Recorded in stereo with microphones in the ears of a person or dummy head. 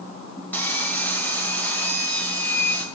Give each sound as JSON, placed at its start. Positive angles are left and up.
{"t": 0.5, "sound": "sawing", "side_deg": 15, "distance_m": 2.0}